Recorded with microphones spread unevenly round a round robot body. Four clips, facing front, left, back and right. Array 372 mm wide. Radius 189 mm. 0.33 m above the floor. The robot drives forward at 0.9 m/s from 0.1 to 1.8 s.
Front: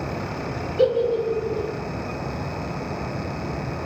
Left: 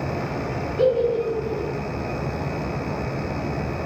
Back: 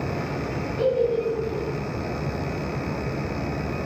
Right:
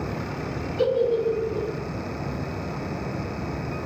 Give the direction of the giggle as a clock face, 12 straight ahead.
2 o'clock.